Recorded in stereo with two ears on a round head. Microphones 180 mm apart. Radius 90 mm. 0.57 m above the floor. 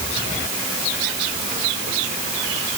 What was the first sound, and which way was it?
Only background noise.